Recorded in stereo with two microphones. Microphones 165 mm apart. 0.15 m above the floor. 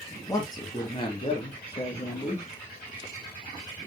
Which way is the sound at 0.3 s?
20° left (ahead or behind).